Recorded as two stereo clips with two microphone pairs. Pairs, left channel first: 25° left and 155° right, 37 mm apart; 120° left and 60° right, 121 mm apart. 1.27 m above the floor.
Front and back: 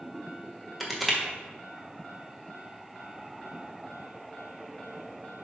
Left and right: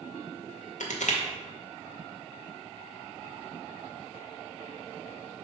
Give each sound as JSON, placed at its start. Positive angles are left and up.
{"t": 0.8, "sound": "crushing", "azimuth_deg": 120, "distance_m": 1.1}